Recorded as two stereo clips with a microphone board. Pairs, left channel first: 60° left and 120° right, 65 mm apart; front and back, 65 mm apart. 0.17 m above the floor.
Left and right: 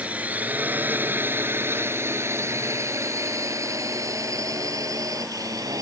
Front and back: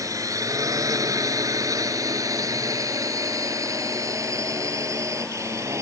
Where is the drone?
175° left; by 5.8 s 140° right.